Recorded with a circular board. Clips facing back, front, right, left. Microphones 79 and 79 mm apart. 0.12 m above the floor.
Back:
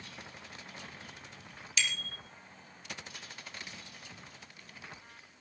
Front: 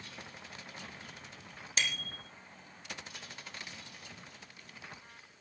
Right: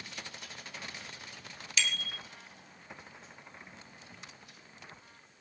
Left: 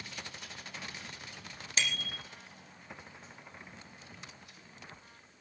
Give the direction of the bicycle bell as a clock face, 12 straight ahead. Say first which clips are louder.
Even, even; 11 o'clock.